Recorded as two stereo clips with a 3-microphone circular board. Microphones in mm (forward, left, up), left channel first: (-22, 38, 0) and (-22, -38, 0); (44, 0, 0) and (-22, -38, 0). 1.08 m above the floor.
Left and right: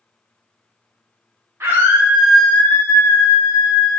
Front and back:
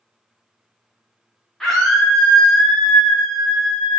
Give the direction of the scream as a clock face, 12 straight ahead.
2 o'clock.